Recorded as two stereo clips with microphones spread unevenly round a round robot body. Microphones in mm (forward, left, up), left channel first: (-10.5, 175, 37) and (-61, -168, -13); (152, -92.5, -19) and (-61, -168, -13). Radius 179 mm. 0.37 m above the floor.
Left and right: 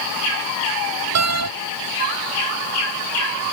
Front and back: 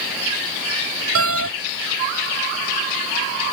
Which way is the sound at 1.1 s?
145° right.